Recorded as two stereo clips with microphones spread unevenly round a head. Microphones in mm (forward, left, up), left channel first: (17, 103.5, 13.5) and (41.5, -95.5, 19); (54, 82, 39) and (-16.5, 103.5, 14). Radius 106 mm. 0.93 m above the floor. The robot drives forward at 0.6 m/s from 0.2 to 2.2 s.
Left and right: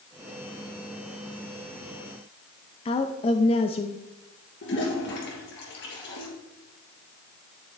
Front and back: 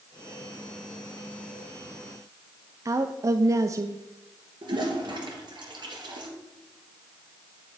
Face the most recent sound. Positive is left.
turn(degrees=140)